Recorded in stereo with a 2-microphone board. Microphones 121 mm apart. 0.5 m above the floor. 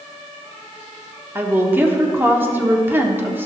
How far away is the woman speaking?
About 1.0 m.